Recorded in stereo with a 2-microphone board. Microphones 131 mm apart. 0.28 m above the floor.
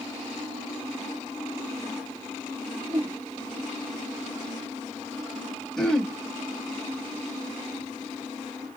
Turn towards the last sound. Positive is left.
turn(degrees=5)  # may be behind; listen again after turning